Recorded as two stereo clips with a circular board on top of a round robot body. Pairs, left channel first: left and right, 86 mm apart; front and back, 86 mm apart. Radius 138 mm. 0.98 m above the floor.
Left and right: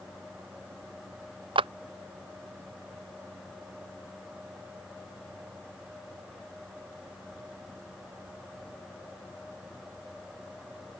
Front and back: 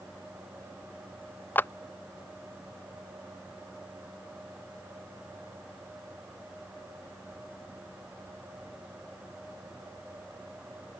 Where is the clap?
70° right.